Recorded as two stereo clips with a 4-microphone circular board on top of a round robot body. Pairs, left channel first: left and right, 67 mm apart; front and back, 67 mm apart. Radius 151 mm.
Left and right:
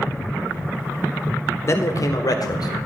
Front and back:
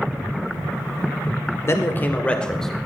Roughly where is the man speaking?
Ahead left.